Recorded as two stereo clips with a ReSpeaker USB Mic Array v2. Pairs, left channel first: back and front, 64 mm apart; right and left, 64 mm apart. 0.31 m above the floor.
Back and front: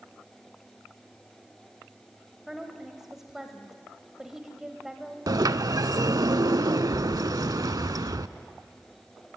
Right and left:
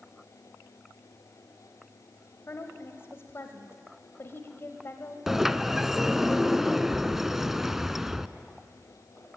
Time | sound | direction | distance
2.5 | a woman speaking | 80° right | 1.4 m
5.3 | a sliding door | 5° left | 0.5 m